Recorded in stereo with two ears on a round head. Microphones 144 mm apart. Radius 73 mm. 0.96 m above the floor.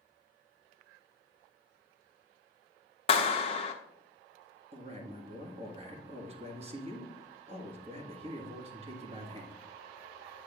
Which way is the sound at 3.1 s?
35° left (ahead or behind).